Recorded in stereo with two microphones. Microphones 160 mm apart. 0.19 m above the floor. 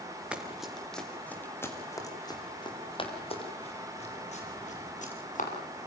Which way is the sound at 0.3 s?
5° right (ahead or behind).